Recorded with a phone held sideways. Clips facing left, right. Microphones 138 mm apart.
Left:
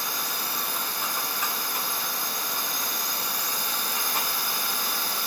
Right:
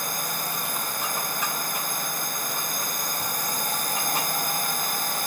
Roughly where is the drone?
Right.